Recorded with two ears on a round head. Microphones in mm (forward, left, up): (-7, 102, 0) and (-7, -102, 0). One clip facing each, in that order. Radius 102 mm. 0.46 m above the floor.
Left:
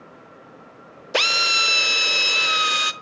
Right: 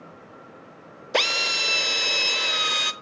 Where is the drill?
5° left (ahead or behind), 0.7 m.